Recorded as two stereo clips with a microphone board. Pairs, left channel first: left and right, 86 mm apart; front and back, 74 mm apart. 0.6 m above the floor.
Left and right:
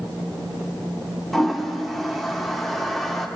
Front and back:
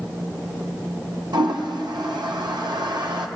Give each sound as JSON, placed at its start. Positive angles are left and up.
{"t": 1.3, "sound": "a toilet flushing", "azimuth_deg": 180, "distance_m": 0.5}